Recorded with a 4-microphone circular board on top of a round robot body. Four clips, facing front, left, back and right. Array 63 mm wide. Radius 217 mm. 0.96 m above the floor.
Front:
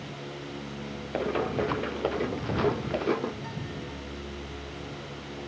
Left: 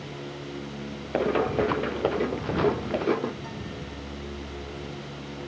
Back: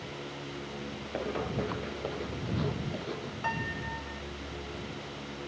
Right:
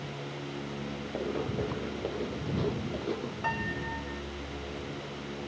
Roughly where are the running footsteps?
Left.